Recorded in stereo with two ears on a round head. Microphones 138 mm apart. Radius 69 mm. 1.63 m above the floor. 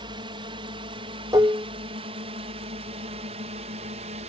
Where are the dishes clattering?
20° right (ahead or behind).